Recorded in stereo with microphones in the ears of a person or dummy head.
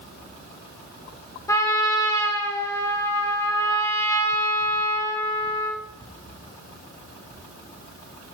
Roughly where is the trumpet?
Centre.